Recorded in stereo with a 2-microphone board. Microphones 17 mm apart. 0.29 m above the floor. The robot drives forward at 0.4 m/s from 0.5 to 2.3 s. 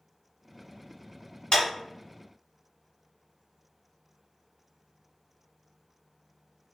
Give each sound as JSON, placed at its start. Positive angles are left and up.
{"t": 1.5, "sound": "a clap", "side_deg": 60, "distance_m": 1.7}